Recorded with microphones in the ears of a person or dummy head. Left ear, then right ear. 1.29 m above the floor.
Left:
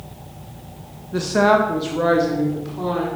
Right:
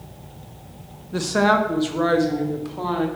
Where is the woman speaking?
15° right (ahead or behind), 0.7 m; by 3.1 s 25° right (ahead or behind), 1.6 m.